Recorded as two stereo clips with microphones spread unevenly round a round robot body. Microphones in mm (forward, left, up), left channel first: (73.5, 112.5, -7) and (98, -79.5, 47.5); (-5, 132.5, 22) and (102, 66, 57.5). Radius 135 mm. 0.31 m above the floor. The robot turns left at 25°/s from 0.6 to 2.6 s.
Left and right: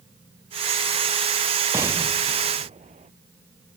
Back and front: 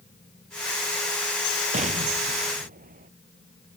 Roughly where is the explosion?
Ahead.